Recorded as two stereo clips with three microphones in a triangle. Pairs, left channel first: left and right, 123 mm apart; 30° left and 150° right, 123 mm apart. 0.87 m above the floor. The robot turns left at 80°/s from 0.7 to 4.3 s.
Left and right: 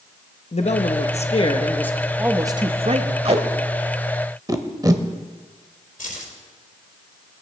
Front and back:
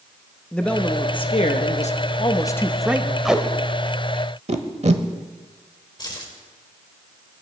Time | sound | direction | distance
0.5 | a man speaking | 110° left | 0.8 m
3.2 | tape being pulled | 60° right | 0.9 m
6.0 | keys jangling | 85° left | 2.5 m